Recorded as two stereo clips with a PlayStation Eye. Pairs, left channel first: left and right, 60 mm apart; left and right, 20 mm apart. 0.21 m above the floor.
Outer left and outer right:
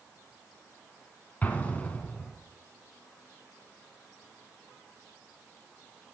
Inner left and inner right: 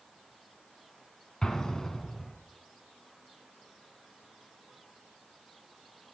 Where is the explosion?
30° left (ahead or behind), 2 m.